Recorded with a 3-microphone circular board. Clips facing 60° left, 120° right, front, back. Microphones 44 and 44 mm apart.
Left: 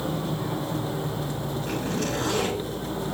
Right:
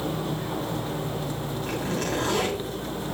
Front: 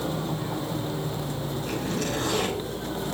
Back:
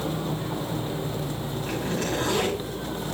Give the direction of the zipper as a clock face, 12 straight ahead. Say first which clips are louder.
Even, back 2 dB; 4 o'clock.